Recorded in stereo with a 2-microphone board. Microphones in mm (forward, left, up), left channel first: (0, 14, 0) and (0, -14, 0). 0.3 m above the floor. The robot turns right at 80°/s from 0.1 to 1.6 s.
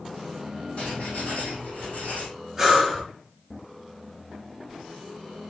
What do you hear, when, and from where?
0.8 s writing: 60° left, 5 m; by 2.3 s 125° left, 5 m
2.6 s breathing: 10° right (ahead or behind), 4.5 m